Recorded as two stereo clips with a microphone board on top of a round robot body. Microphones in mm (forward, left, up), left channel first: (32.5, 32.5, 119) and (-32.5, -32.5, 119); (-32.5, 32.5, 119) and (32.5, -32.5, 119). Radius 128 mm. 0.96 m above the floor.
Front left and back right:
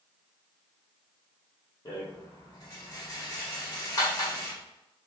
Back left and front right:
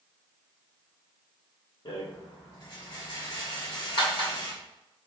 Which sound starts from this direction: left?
A rattle, at 1.9 s.